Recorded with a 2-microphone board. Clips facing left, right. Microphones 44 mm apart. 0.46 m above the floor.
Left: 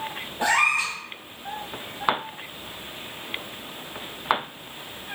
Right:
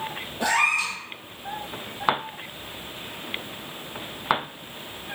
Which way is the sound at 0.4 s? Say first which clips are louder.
Left 1 dB; 35° left (ahead or behind).